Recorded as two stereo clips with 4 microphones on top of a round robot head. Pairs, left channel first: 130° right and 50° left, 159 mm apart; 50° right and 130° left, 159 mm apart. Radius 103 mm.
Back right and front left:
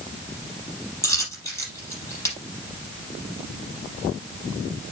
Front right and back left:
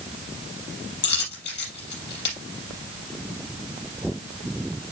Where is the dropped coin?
60° right, 5.5 m.